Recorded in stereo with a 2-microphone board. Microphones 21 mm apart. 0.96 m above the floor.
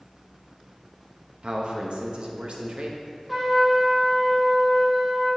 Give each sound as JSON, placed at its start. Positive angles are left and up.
{"t": 1.4, "sound": "a man speaking", "side_deg": -55, "distance_m": 1.1}
{"t": 3.3, "sound": "a trumpet", "side_deg": -5, "distance_m": 2.5}